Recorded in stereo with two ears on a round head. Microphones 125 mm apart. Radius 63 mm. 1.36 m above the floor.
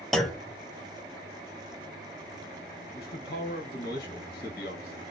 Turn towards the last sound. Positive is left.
turn(degrees=70)  # may be behind; listen again after turning